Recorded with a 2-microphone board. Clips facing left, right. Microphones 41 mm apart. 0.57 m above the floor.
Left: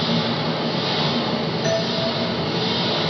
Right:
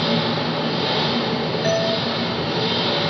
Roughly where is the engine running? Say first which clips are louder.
Right 1 dB; right.